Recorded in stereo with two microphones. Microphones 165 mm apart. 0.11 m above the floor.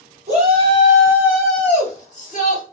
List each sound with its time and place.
0.3 s a shout: 40° right (ahead or behind), 1.7 m; by 2.6 s 45° left (ahead or behind), 1.6 m